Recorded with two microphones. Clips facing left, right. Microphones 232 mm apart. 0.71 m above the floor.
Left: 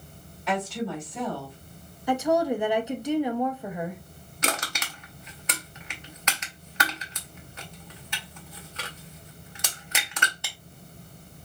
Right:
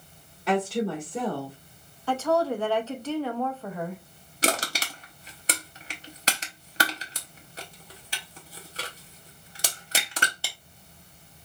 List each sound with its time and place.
0.5 s a woman speaking: 45° right (ahead or behind), 1.6 m
2.1 s a woman speaking: 15° left (ahead or behind), 0.6 m
4.4 s crushing: 35° right (ahead or behind), 0.7 m